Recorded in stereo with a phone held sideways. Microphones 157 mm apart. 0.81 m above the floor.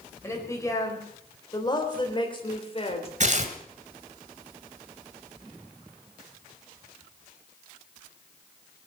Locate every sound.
0.2 s a woman speaking: 15° left (ahead or behind), 4.5 m; by 3.1 s 40° left (ahead or behind), 3 m
3.2 s tearing paper: 50° right (ahead or behind), 1.8 m